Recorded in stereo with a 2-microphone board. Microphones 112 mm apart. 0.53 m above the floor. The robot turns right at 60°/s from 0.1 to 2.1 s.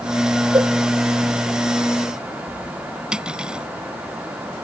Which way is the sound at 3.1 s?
10° right (ahead or behind).